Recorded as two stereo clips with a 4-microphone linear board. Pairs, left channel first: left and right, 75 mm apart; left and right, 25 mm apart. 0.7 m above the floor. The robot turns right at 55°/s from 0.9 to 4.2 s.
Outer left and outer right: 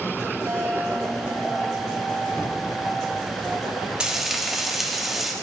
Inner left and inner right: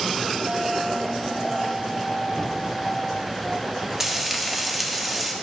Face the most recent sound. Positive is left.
turn(degrees=-5)  # may be behind; listen again after turning